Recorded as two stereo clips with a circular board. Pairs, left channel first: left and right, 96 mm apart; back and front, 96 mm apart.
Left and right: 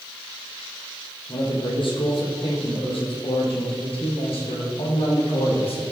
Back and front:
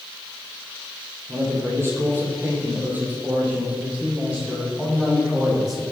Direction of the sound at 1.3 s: 60° left.